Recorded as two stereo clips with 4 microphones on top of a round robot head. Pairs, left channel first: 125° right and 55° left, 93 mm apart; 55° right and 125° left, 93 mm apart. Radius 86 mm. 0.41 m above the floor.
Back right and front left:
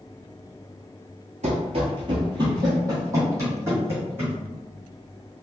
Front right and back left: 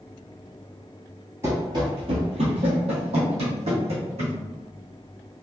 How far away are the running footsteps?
About 0.6 m.